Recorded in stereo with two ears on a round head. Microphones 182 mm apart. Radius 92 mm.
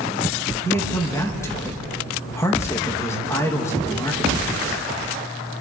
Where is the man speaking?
15° left (ahead or behind), 2 m.